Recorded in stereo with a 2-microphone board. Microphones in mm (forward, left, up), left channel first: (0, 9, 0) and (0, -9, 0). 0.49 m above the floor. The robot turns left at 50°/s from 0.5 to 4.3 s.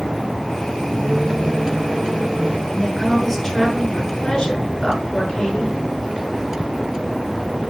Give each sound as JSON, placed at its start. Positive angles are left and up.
{"t": 1.0, "sound": "a microwave", "azimuth_deg": -70, "distance_m": 2.0}
{"t": 2.7, "sound": "a woman speaking", "azimuth_deg": -150, "distance_m": 6.0}